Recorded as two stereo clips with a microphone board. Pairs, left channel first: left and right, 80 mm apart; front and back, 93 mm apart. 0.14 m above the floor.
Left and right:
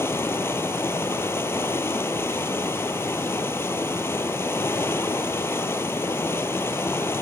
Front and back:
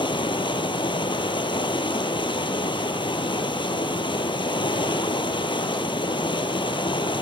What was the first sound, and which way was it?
Running water, 30° left.